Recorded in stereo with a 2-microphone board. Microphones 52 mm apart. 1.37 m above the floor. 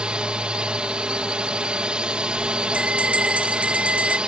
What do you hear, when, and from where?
0.0 s a drone: 20° right (ahead or behind)
2.7 s a bell: 25° right (ahead or behind)